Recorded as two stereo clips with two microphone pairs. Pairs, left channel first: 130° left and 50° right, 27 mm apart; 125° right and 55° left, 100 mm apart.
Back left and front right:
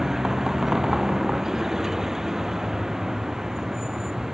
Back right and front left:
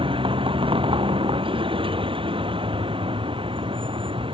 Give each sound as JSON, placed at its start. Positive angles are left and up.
{"t": 0.0, "sound": "a vehicle", "azimuth_deg": 25}